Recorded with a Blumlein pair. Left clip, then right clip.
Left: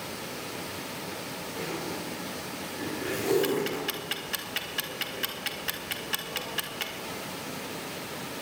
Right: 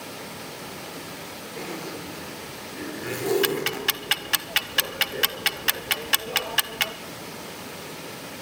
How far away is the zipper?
About 4 m.